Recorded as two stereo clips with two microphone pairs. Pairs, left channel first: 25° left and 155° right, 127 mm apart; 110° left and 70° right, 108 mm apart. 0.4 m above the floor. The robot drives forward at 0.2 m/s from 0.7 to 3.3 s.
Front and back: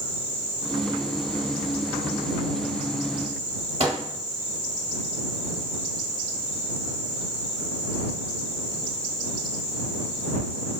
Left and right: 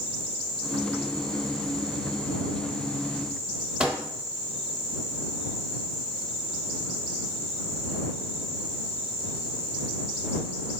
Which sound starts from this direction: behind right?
A microwave, at 3.8 s.